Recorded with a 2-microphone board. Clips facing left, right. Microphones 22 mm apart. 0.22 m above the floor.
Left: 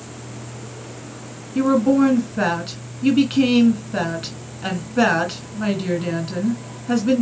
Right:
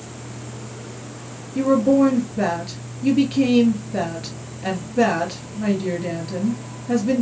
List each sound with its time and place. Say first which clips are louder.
1.6 s a woman speaking: even; 60° left (ahead or behind), 2 m